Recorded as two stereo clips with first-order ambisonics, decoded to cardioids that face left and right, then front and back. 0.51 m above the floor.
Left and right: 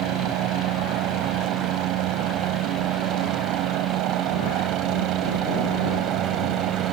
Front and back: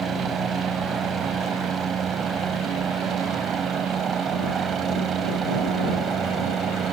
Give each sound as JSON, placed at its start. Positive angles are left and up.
{"t": 0.0, "sound": "a helicopter", "azimuth_deg": -115}